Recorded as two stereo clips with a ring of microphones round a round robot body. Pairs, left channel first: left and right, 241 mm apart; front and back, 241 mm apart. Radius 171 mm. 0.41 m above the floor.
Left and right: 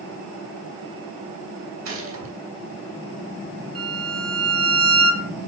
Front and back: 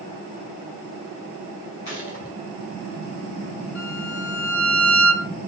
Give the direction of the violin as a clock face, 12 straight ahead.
1 o'clock.